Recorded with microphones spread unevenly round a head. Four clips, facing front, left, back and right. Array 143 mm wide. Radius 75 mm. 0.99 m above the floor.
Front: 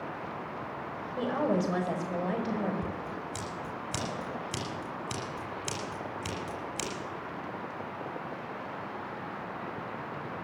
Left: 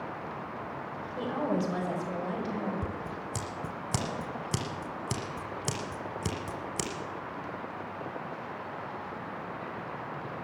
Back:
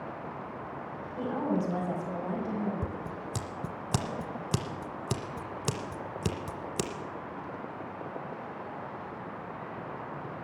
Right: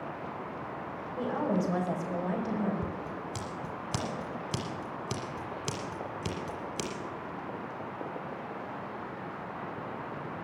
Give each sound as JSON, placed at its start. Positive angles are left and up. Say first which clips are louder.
{"t": 1.2, "sound": "a woman speaking", "louder": "even, front 2 dB", "azimuth_deg": 10, "distance_m": 5.0}
{"t": 2.8, "sound": "scissors", "louder": "even, front 1 dB", "azimuth_deg": 165, "distance_m": 1.1}